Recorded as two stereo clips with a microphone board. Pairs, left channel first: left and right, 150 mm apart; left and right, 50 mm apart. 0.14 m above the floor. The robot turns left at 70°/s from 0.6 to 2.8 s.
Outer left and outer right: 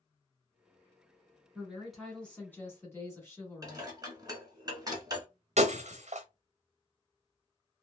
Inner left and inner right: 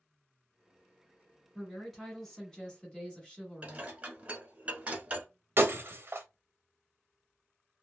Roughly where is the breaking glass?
Right.